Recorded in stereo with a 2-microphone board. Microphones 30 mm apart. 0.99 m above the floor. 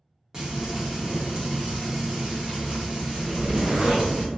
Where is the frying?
30° right (ahead or behind), 1.0 m.